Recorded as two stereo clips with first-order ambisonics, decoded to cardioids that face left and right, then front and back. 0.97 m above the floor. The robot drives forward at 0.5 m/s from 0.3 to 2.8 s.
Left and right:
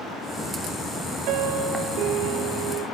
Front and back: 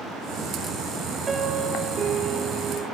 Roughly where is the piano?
Right.